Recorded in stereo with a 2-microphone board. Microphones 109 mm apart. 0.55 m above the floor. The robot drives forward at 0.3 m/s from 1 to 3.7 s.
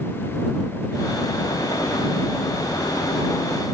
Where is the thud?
No thud in this recording.